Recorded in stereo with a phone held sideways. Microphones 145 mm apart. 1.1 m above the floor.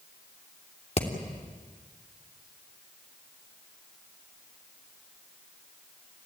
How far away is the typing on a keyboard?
No typing on a keyboard in this recording.